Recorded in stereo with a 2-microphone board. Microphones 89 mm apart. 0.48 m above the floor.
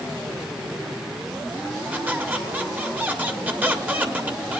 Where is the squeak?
20° right (ahead or behind), 1.3 m.